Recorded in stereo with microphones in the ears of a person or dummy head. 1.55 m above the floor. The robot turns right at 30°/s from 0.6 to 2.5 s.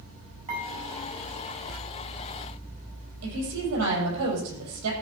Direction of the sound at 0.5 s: 40° right (ahead or behind).